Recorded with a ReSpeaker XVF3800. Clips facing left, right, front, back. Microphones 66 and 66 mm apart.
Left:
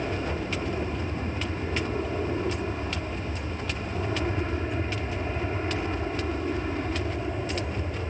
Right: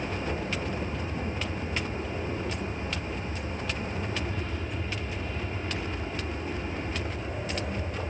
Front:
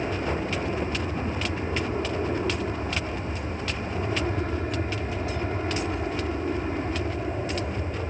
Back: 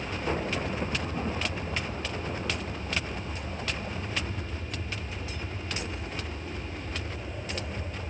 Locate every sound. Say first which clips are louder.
0.0 s an aircraft: left 2 dB, front 3 dB; 30° left